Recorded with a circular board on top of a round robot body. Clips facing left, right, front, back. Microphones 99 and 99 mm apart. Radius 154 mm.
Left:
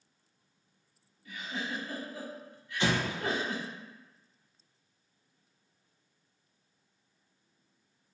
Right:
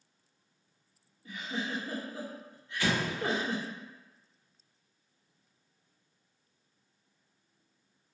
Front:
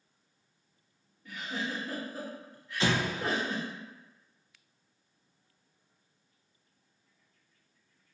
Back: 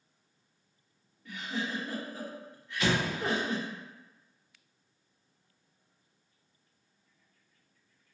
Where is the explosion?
35° left, 0.7 m.